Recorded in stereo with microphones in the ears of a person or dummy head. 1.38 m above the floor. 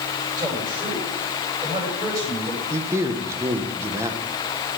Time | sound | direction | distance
0.4 | a man speaking | 20° right (ahead or behind) | 8 m
2.7 | a man speaking | 15° right (ahead or behind) | 1.4 m